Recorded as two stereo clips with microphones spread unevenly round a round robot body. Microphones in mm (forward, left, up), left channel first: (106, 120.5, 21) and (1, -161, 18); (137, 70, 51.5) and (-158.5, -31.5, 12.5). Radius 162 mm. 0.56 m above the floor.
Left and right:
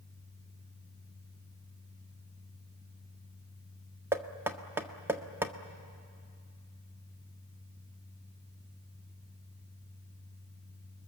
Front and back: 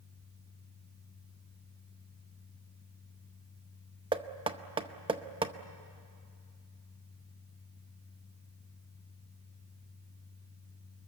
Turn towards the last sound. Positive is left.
turn(degrees=180)